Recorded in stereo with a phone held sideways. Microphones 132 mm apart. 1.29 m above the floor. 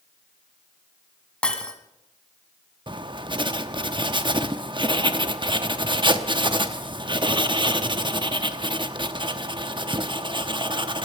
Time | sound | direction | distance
1.4 | breaking glass | 10° left (ahead or behind) | 1.7 m
2.9 | writing | 40° right (ahead or behind) | 0.9 m